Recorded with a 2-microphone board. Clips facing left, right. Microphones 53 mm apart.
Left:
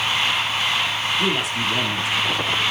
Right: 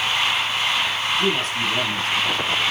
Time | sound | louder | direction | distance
1.2 | a man speaking | even | 15° left (ahead or behind) | 4 m